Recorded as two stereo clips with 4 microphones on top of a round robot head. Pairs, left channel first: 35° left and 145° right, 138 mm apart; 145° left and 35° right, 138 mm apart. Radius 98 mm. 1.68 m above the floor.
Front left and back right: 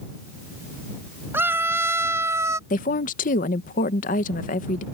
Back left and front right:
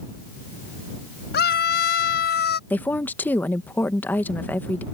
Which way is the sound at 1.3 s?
140° left.